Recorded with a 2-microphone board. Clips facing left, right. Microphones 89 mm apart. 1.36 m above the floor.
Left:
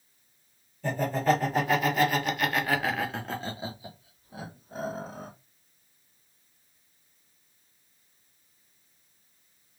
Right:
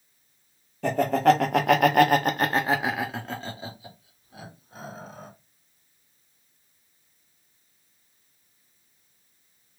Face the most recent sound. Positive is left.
turn(degrees=35)  # may be behind; listen again after turning